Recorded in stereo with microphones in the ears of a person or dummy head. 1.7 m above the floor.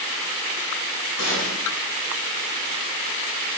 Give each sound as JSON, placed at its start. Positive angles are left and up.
{"t": 1.2, "sound": "a gunshot", "side_deg": 80, "distance_m": 7.0}